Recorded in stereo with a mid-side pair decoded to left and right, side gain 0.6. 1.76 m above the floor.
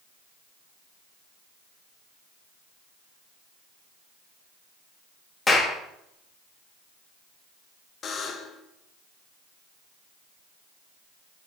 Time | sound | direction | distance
5.5 | a clap | 20° left | 2.5 m
8.0 | a buzzer | 40° left | 1.2 m